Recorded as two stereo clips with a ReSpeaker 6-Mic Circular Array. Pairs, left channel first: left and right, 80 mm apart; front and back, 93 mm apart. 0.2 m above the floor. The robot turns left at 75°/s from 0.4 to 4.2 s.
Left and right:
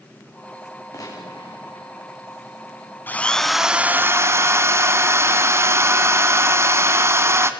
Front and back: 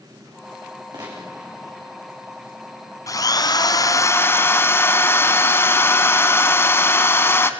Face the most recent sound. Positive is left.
turn(degrees=-50)